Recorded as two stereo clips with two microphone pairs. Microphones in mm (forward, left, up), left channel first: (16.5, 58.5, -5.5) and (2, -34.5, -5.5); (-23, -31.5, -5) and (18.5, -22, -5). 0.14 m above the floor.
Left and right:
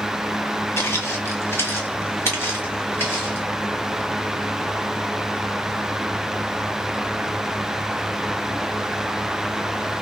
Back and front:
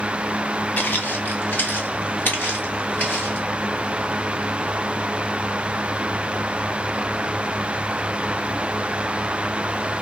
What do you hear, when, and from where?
0.8 s footsteps: 140° left, 0.7 m; by 3.5 s 145° left, 2.5 m